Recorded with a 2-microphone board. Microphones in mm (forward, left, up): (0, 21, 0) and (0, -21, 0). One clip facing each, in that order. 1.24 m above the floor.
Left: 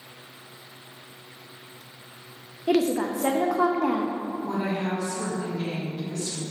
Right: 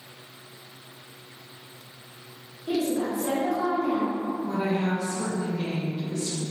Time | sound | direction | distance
2.7 | a woman speaking | 70° left (ahead or behind) | 0.5 m
4.4 | a woman speaking | 5° right (ahead or behind) | 1.5 m